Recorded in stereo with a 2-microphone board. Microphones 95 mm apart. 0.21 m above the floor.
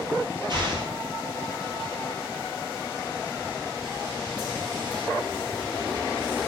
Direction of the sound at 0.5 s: 50° right (ahead or behind).